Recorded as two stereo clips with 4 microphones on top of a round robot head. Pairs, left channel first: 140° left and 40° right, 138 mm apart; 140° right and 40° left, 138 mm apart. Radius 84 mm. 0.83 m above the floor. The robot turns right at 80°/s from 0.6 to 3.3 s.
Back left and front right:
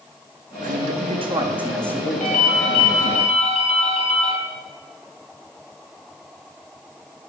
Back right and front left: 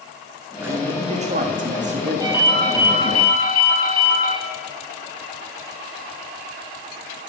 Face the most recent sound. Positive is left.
turn(degrees=-170)